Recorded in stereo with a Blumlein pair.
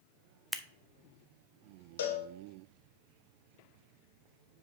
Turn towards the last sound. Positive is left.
turn(degrees=60)